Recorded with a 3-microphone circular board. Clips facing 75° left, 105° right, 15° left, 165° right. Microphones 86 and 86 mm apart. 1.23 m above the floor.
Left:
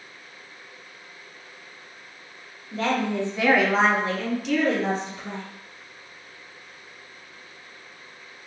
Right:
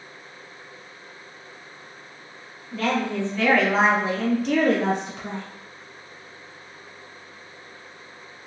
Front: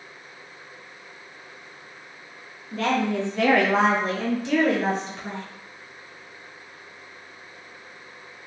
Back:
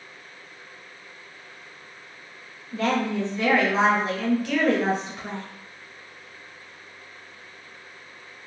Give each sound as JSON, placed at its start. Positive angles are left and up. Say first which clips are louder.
{"t": 2.7, "sound": "a woman speaking", "louder": "even, front 1 dB", "azimuth_deg": 15, "distance_m": 1.0}